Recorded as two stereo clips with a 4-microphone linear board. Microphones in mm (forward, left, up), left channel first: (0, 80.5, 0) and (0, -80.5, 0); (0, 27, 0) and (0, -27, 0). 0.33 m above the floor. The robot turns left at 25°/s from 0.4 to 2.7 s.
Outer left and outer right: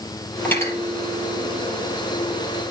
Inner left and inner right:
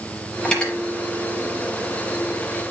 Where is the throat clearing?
I don't hear throat clearing.